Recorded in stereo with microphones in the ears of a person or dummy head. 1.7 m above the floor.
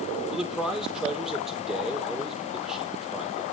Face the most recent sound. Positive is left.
turn(degrees=0)  # may be behind; listen again after turning